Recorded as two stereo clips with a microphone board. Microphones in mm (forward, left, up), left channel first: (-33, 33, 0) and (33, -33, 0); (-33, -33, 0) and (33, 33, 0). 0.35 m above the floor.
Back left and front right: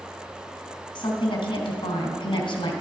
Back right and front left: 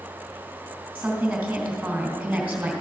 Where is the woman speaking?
120° left, 2.5 m.